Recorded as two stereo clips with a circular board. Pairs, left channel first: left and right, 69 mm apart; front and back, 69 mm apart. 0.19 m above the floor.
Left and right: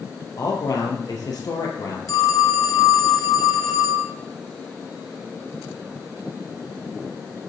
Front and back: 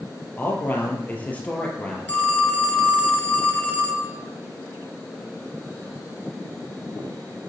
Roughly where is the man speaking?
Ahead left.